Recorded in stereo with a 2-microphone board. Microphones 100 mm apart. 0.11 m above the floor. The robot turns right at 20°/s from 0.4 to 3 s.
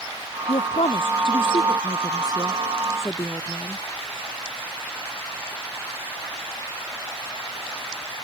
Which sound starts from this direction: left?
A woman speaking, at 0.5 s.